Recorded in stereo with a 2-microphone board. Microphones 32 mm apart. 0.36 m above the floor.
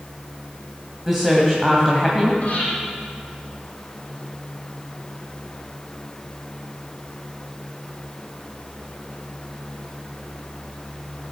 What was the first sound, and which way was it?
A woman speaking, 5° right (ahead or behind).